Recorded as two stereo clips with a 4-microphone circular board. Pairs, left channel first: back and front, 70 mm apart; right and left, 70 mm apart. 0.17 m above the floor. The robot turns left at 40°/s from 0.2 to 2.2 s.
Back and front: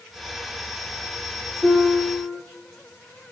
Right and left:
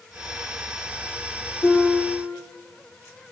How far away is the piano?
About 4 m.